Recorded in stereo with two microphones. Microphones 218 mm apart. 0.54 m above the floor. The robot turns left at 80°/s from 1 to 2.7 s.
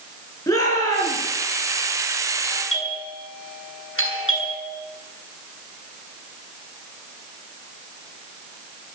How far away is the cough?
No cough in this recording.